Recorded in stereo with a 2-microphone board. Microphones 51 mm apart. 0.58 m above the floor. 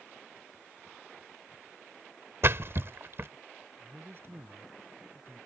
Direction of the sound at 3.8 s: 50° right (ahead or behind).